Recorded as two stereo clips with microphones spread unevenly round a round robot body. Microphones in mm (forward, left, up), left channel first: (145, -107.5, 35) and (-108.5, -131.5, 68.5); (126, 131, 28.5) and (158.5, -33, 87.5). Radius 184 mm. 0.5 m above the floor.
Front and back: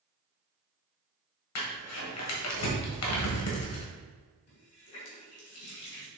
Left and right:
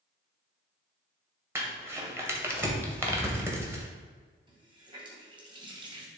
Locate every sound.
1.6 s crumpling: straight ahead, 1.9 m
4.5 s a running tap: 10° right, 2.5 m